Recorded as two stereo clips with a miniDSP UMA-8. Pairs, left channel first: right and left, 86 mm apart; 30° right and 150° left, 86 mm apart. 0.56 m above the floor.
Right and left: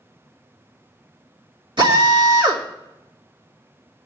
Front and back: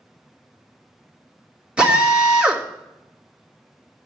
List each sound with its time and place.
1.8 s a drill: 70° left, 2.5 m